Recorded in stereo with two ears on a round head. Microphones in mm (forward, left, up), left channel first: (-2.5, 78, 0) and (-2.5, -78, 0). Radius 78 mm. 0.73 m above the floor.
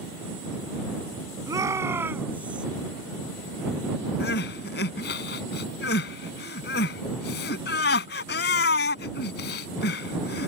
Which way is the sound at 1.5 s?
20° right (ahead or behind).